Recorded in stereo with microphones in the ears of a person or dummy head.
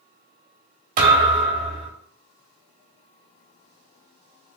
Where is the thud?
45° right (ahead or behind), 1.4 m.